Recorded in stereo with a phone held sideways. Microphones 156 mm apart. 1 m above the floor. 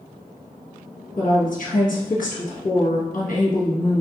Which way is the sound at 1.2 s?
60° left (ahead or behind).